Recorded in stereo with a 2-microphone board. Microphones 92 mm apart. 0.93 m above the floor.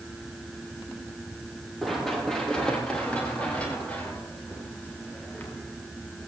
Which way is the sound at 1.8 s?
Centre (ahead or behind).